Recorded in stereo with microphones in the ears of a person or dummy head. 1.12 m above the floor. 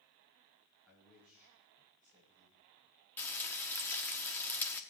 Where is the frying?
10° left (ahead or behind), 0.8 m.